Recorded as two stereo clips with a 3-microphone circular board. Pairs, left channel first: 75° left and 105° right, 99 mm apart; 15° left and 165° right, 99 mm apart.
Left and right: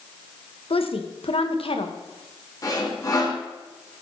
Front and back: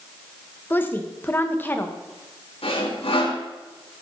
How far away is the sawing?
About 3.5 m.